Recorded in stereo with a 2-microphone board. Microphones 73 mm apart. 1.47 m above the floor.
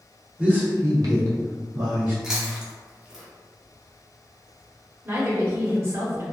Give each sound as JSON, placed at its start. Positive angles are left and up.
{"t": 0.4, "sound": "a man speaking", "side_deg": -15, "distance_m": 1.0}
{"t": 2.2, "sound": "chewing", "side_deg": -5, "distance_m": 0.7}
{"t": 5.0, "sound": "a woman speaking", "side_deg": -40, "distance_m": 1.4}